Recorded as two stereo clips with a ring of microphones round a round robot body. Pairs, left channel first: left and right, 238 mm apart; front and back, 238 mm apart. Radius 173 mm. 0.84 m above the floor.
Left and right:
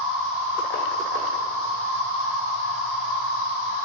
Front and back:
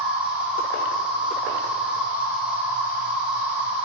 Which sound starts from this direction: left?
An insect, at 0.0 s.